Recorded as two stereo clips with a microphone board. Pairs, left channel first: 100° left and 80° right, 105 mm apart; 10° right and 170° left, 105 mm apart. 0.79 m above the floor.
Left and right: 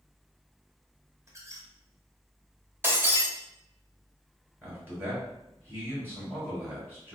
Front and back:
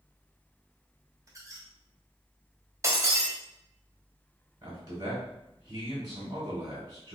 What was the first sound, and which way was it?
A squeak, 135° right.